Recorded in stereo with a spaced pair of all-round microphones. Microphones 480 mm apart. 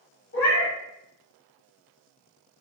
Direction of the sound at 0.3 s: 25° left (ahead or behind).